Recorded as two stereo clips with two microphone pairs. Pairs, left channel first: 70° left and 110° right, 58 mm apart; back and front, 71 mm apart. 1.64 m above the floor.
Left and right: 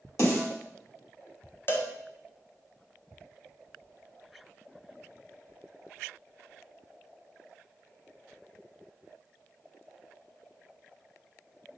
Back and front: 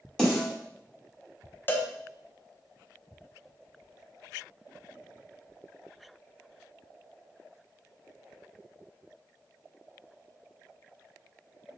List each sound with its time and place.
0.2 s a snare drum: 105° left, 2.5 m
1.7 s a cowbell: 120° left, 0.6 m